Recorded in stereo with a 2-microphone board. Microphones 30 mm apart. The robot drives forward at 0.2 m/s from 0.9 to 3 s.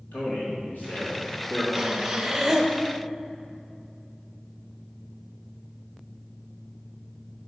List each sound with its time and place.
0.1 s a man speaking: 75° left (ahead or behind), 3 m; by 1.6 s 70° left (ahead or behind), 3 m
1.7 s breathing: 20° right (ahead or behind), 0.7 m; by 2.7 s 15° right (ahead or behind), 0.9 m